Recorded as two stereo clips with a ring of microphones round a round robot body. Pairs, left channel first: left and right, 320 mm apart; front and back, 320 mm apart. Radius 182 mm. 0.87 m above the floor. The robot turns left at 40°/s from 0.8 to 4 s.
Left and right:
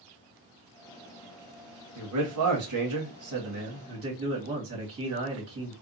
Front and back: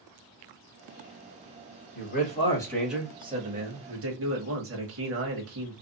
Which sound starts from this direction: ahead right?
A man speaking, at 1.9 s.